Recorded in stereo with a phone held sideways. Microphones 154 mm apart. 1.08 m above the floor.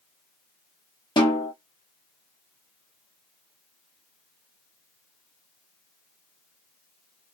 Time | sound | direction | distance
1.2 | a snare drum | 30° left (ahead or behind) | 1.2 m